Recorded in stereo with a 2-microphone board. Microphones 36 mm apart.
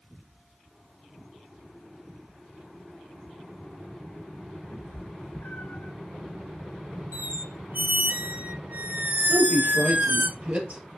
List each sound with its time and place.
4.7 s a cat meowing: 80° left, 2.5 m; by 5.9 s 65° left (ahead or behind), 1.4 m
7.1 s a squeak: 60° right (ahead or behind), 0.6 m
9.3 s a woman speaking: 40° right (ahead or behind), 2.5 m